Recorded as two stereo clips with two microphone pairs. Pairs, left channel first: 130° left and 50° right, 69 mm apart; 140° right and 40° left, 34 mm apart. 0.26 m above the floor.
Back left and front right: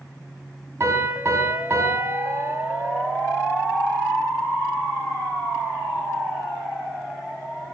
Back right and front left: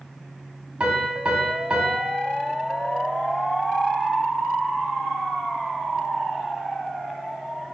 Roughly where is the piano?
Ahead.